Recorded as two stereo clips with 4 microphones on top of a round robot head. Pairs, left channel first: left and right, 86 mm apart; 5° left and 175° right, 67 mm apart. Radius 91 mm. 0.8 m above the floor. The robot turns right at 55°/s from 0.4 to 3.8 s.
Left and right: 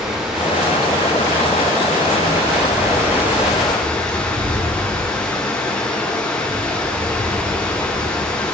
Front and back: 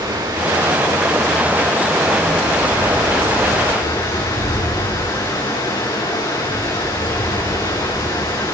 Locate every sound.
0.0 s running water: 175° right, 7 m; by 8.6 s 15° left, 7 m